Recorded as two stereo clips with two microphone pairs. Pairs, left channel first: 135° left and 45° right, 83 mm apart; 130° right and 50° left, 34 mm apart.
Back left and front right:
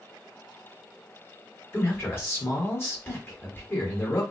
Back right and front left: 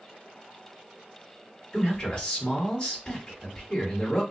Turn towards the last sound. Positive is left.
turn(degrees=180)